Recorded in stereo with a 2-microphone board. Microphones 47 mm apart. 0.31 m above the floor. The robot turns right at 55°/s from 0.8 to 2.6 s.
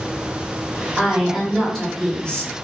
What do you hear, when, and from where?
1.0 s a woman speaking: 10° right (ahead or behind), 1.3 m; by 2.5 s 20° left (ahead or behind), 1.3 m